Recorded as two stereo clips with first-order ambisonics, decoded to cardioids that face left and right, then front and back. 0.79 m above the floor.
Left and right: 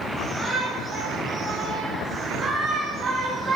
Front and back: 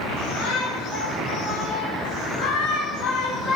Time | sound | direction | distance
0.2 | a shout | 10° right | 5 m